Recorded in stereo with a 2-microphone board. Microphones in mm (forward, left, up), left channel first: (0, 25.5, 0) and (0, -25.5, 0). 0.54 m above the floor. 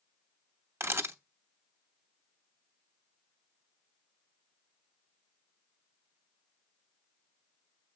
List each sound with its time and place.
0.8 s a camera shutter: 55° right (ahead or behind), 0.8 m